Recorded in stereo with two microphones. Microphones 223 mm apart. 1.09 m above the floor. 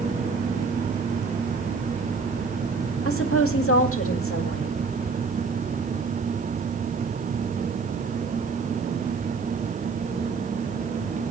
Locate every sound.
3.0 s a woman speaking: 70° left (ahead or behind), 2 m